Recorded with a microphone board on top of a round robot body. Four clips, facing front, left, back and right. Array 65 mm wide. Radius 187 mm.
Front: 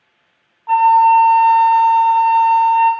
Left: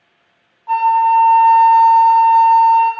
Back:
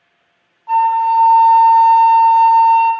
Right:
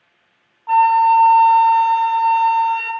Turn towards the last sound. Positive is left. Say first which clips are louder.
# even, front 3 dB
turn(degrees=-35)